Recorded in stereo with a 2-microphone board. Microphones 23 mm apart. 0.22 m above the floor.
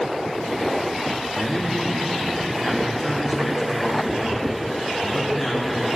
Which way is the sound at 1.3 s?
10° right (ahead or behind).